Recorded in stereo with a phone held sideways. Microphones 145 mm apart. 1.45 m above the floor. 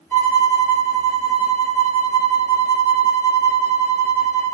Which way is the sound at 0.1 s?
15° left (ahead or behind).